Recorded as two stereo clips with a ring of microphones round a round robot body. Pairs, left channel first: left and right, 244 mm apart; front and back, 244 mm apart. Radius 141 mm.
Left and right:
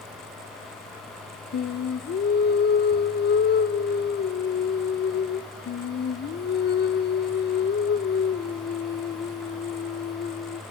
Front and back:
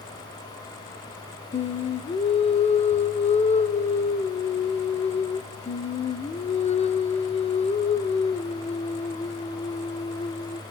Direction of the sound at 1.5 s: 55° left.